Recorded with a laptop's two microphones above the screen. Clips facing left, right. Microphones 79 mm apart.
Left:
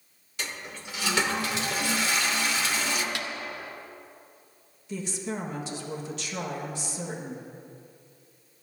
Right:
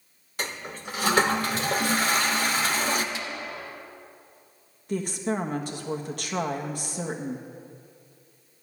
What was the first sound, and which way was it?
A toilet flushing, 40° right (ahead or behind).